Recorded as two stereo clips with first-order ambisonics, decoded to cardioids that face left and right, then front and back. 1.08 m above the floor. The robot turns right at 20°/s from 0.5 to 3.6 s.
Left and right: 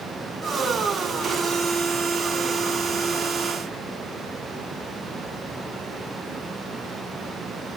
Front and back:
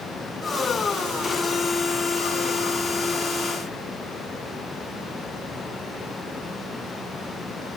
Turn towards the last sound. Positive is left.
No sound to turn to.